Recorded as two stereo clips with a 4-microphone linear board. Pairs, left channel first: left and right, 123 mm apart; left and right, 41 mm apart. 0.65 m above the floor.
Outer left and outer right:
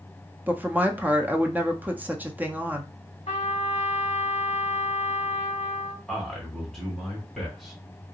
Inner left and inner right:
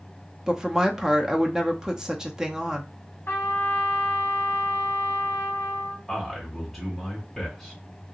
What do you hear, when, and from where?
0.5 s a woman speaking: 15° right (ahead or behind), 0.6 m
3.3 s a trumpet: 65° left (ahead or behind), 1.2 m
6.1 s a man speaking: 5° left (ahead or behind), 2 m